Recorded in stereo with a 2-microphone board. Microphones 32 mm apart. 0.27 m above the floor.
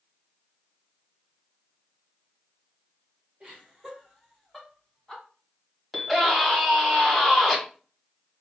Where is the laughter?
25° right (ahead or behind), 1.6 m; by 5.2 s 20° left (ahead or behind), 1.5 m.